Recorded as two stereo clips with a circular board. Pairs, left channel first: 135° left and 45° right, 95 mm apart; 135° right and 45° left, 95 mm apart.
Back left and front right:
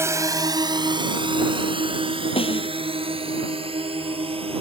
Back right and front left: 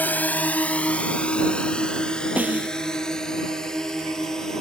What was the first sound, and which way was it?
A drone, 80° right.